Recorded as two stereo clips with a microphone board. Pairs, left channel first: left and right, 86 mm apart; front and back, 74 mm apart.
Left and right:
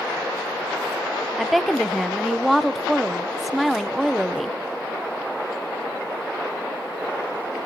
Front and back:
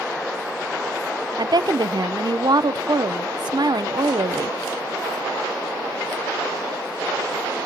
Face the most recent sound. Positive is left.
turn(degrees=180)